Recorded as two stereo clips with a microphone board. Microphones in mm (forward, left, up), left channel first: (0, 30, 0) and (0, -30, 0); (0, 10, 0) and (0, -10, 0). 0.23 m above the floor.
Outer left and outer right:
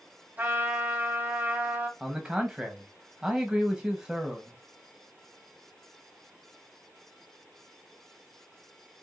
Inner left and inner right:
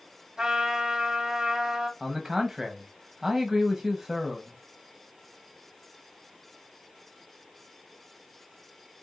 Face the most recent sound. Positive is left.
turn(degrees=-15)  # may be behind; listen again after turning